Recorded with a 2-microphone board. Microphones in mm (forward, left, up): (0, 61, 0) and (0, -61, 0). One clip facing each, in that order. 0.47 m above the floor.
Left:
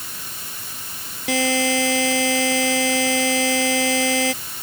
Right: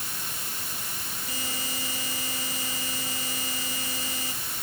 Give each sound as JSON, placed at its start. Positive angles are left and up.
{"t": 1.3, "sound": "a buzzer", "side_deg": 80}